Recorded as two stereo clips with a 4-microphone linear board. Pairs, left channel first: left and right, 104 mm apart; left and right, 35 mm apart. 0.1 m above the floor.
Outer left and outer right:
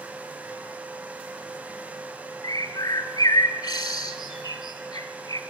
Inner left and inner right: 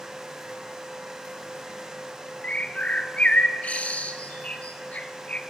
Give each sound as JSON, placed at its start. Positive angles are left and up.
{"t": 2.4, "sound": "a bird", "side_deg": 40, "distance_m": 0.7}